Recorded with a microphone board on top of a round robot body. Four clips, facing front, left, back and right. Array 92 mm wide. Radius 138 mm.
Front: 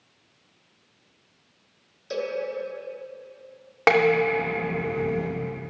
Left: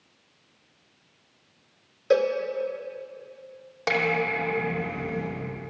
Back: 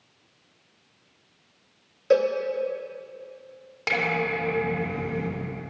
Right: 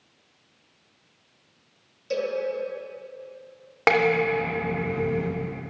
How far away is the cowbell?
About 1.2 m.